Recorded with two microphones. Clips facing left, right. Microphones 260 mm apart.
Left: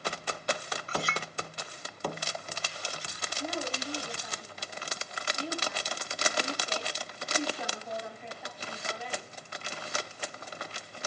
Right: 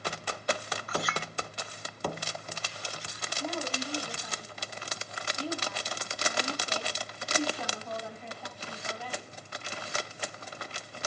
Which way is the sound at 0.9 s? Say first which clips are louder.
Right 1 dB; 30° left (ahead or behind).